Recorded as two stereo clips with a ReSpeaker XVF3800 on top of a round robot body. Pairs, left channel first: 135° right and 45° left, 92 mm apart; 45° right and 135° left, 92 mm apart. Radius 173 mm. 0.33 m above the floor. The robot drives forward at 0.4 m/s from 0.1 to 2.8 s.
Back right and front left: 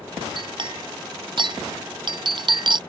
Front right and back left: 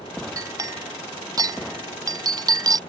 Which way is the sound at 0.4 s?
80° left.